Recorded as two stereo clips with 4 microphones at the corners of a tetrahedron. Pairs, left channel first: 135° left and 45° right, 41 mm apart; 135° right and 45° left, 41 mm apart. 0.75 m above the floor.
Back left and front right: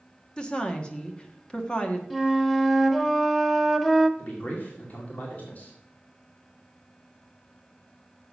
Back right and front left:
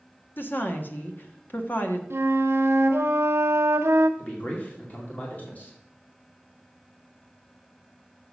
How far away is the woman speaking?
About 1.3 m.